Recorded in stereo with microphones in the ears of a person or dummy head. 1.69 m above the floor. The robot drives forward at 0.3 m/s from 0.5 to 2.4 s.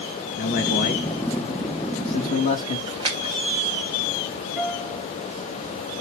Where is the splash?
30° right (ahead or behind), 1.7 m.